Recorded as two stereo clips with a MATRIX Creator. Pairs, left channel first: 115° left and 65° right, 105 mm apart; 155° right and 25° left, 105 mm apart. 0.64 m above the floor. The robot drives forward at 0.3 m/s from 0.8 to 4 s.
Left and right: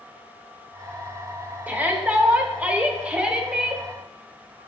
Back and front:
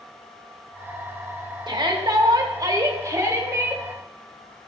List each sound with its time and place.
1.7 s a shout: straight ahead, 1.3 m